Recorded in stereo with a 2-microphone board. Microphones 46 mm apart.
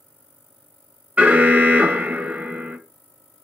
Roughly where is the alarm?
Right.